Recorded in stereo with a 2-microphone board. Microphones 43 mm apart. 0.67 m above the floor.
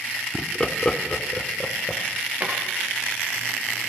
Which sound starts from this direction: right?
A drawer, at 2.4 s.